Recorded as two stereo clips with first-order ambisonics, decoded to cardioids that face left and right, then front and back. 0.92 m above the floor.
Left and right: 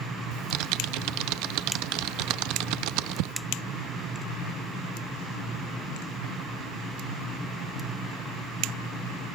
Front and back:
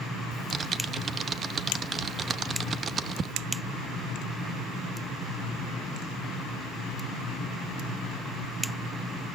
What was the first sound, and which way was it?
Typing on a keyboard, 110° right.